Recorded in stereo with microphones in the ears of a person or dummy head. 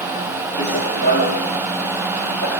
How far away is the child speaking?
No child speaking in this recording.